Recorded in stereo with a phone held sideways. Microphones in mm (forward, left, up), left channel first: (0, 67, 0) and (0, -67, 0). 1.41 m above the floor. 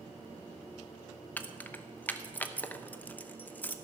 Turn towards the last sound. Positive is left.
turn(degrees=10)  # may be behind; listen again after turning